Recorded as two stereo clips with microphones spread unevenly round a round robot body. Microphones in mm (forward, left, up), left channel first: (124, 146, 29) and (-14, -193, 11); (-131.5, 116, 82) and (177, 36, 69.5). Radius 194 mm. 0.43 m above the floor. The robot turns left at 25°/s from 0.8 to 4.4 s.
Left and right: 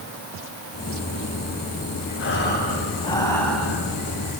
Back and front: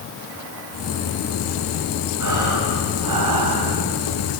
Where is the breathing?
15° left, 3.5 m; by 3.8 s 25° right, 3.5 m.